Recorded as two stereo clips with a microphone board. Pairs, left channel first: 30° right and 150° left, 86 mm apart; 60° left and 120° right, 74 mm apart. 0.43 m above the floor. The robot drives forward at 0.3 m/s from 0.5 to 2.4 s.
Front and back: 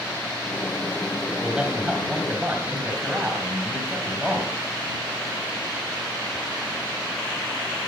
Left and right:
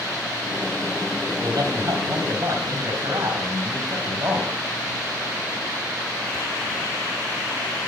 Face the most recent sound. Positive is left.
turn(degrees=-140)